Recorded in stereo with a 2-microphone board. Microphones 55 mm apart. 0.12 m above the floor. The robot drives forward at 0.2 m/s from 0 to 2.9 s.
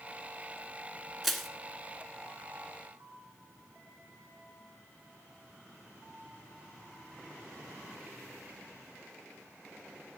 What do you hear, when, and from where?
1.2 s crushing: centre (ahead or behind), 0.8 m